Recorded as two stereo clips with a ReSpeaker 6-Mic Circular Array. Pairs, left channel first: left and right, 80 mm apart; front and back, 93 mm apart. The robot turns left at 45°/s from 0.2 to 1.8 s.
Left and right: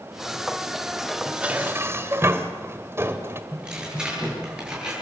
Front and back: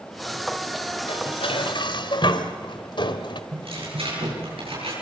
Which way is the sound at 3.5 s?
170° right.